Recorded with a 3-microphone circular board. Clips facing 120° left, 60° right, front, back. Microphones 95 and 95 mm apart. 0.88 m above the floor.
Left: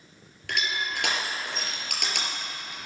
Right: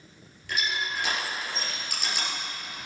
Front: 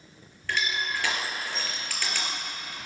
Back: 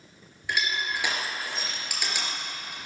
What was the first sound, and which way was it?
Crushing, 105° left.